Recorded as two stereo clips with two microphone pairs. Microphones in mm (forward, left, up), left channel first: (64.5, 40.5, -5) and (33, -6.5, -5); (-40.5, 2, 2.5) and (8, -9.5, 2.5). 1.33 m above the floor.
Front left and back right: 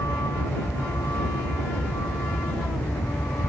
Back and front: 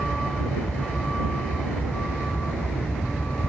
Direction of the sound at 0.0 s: 85° left.